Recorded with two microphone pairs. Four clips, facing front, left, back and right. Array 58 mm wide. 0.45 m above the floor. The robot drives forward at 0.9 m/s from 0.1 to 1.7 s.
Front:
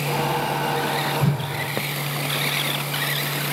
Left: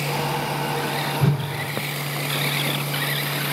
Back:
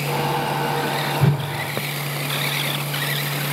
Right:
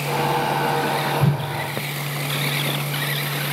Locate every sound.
1.2 s a whoosh: straight behind, 1.5 m